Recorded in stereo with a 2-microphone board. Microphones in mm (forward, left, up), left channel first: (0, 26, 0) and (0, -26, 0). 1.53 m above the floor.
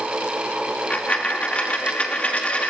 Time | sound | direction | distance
0.9 | a dropped coin | 25° left (ahead or behind) | 1.3 m